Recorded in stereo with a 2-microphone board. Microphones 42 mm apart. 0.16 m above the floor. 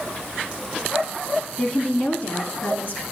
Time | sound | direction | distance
1.6 | a woman speaking | 15° left (ahead or behind) | 1.0 m